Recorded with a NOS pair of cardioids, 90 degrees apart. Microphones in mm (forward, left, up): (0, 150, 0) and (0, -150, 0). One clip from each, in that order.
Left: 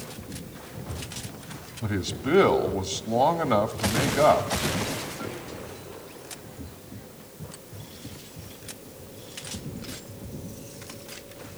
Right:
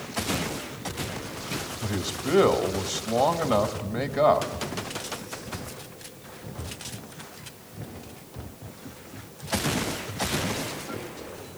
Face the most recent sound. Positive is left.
turn(degrees=0)